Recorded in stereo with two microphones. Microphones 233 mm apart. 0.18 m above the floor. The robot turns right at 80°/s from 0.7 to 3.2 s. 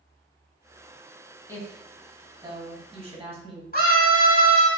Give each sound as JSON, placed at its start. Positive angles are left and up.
{"t": 1.5, "sound": "a woman speaking", "side_deg": 10, "distance_m": 1.1}
{"t": 3.7, "sound": "a scream", "side_deg": 40, "distance_m": 1.3}